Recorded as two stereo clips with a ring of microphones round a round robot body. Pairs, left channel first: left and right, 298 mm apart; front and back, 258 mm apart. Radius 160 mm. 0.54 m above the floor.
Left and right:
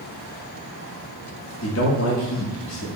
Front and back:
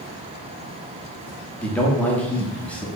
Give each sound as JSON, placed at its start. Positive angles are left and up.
{"t": 1.6, "sound": "a man speaking", "azimuth_deg": 85, "distance_m": 0.8}